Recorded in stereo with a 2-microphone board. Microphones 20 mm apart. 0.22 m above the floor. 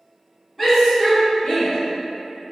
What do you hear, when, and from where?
0.6 s a shout: 5° left (ahead or behind), 1.5 m; by 1.8 s 50° left (ahead or behind), 2 m